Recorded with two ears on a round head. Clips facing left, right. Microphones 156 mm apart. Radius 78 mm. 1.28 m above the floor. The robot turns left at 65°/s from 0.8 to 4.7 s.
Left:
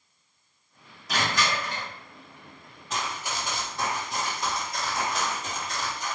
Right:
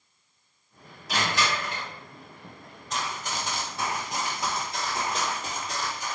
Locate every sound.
1.1 s crushing: 90° left, 1.6 m; by 1.9 s 45° left, 1.6 m
2.9 s running footsteps: 5° left (ahead or behind), 1.3 m; by 6.2 s 35° right (ahead or behind), 2 m